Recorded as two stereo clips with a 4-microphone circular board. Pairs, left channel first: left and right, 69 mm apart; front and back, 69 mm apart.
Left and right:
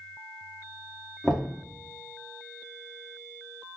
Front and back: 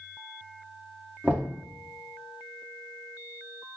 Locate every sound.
1.2 s knocking: 160° left, 0.8 m